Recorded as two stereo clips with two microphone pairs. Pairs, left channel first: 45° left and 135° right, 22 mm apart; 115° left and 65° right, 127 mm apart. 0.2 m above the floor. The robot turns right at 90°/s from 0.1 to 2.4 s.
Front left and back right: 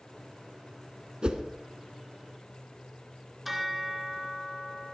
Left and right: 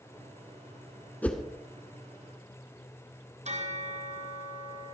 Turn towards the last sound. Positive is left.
turn(degrees=-55)